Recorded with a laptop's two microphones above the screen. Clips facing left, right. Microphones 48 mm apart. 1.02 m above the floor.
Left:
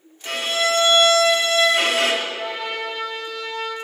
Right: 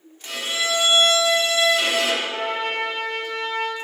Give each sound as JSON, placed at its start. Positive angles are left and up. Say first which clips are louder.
{"t": 0.2, "sound": "a violin", "louder": "left 4 dB", "side_deg": 55, "distance_m": 0.9}
{"t": 2.2, "sound": "a trumpet", "louder": "right 2 dB", "side_deg": -50, "distance_m": 1.0}